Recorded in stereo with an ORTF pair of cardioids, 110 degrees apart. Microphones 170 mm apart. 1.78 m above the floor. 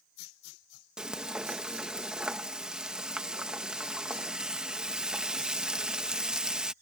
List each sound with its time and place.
1.0 s frying: 5° right